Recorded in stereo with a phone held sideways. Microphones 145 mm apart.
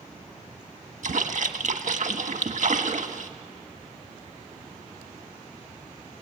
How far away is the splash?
About 1.5 m.